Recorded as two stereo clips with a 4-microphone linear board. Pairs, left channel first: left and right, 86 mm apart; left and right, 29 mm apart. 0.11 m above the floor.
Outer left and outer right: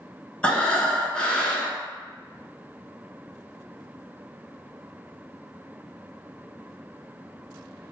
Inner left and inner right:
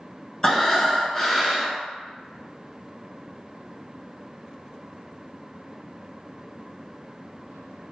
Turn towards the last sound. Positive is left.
turn(degrees=15)  # may be behind; listen again after turning